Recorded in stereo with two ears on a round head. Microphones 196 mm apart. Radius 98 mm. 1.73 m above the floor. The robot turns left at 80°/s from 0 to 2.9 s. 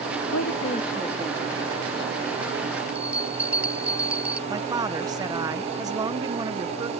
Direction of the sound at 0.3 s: 70° left.